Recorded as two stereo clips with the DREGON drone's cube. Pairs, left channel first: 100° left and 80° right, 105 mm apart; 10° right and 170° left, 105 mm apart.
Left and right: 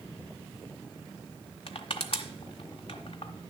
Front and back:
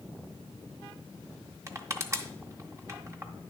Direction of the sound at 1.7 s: 110° left.